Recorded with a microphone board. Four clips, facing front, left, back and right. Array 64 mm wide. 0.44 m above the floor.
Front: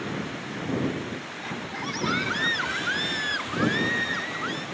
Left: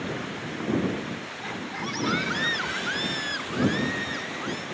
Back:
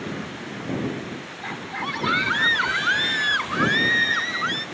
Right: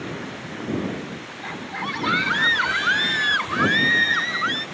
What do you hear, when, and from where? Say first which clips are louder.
1.4 s a scream: right 4 dB, back 5 dB; 150° right; by 4.7 s 120° right